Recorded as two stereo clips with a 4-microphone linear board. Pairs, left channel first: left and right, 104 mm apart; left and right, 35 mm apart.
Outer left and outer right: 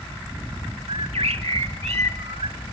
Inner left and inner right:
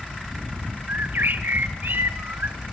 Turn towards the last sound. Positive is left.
turn(degrees=-75)  # may be behind; listen again after turning